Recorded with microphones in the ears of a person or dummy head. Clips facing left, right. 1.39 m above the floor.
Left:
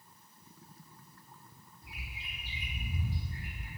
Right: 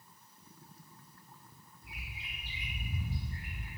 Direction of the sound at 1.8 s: 55° left (ahead or behind).